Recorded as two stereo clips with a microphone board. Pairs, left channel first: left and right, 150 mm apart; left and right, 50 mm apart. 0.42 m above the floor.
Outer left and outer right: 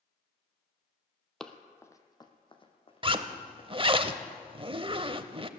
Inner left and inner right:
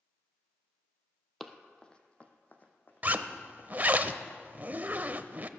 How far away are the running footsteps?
About 0.9 m.